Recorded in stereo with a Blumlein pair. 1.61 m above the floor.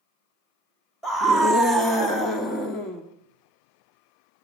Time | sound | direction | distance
1.0 | a scream | 10° left | 3 m